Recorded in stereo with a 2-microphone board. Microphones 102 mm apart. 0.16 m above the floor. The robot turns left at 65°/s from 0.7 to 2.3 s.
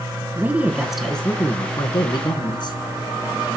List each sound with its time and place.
0.3 s a woman speaking: 160° right, 1.6 m; by 2.8 s 95° left, 1.6 m